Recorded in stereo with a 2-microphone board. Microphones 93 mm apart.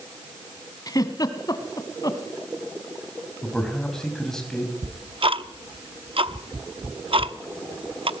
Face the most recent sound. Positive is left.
turn(degrees=-70)  # may be behind; listen again after turning